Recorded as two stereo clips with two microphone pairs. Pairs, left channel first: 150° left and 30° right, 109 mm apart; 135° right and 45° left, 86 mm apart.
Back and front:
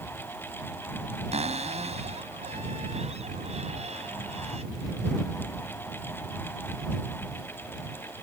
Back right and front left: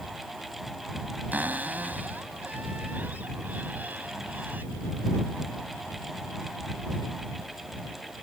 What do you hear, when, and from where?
1.3 s a cupboard door: 25° right